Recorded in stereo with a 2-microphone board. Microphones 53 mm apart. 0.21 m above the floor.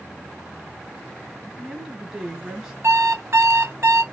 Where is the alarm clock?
60° right (ahead or behind), 1.4 m.